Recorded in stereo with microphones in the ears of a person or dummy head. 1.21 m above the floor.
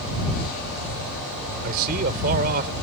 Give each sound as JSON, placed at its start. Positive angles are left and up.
{"t": 1.6, "sound": "a man speaking", "side_deg": -50}